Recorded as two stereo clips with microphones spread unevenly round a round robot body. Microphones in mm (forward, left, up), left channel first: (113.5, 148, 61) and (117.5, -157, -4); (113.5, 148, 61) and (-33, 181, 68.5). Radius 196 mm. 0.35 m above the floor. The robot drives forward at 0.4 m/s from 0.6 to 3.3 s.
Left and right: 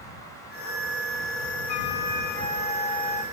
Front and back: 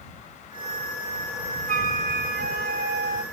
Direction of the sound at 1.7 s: 140° left.